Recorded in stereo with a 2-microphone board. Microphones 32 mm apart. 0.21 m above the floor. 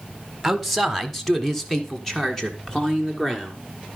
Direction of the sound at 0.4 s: Centre (ahead or behind).